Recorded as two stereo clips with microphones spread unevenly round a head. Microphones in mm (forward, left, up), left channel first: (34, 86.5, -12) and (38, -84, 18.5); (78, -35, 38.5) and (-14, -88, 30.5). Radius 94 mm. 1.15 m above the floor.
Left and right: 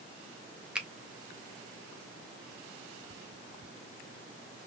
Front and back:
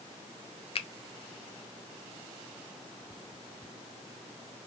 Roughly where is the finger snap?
Ahead.